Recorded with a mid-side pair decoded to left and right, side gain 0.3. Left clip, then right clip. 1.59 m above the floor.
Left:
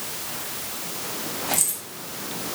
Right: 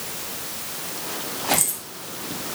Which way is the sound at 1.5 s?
5° right.